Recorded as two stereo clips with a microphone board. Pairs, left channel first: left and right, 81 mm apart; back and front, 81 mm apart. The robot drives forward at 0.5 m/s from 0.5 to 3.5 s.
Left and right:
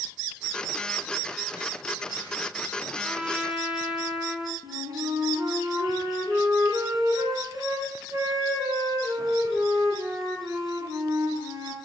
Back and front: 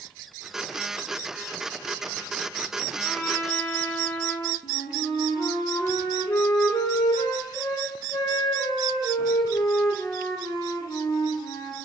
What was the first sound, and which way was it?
A trumpet, 155° right.